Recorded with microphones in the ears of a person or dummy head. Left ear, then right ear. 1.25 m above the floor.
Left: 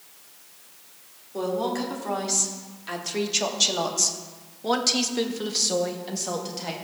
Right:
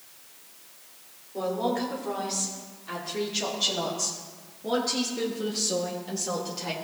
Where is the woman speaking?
75° left (ahead or behind), 3 m; by 6.7 s 10° left (ahead or behind), 1.4 m.